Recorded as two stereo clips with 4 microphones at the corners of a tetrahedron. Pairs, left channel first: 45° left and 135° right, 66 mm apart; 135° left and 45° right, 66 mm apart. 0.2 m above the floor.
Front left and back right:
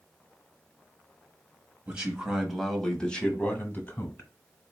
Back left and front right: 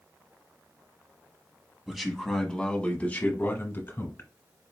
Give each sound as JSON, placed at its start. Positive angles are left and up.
{"t": 1.9, "sound": "a man speaking", "azimuth_deg": -120, "distance_m": 1.0}